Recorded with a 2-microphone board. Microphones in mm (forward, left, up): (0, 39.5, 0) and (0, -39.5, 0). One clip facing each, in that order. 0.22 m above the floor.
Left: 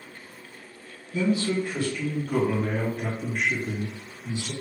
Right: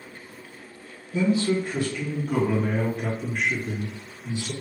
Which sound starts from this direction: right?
A man speaking, at 1.1 s.